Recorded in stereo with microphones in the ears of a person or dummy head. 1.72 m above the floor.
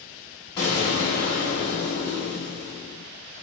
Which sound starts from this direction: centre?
An explosion, at 0.6 s.